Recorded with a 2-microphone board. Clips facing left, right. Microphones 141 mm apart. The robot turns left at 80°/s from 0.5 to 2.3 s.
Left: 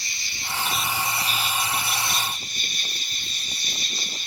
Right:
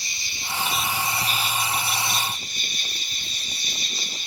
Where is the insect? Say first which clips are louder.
Even; 155° right, 1.0 m; by 4.3 s 60° left, 1.0 m.